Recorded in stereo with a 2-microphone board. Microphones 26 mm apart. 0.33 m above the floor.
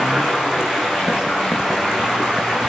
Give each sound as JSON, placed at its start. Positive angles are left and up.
{"t": 0.0, "sound": "running water", "side_deg": -30, "distance_m": 6.5}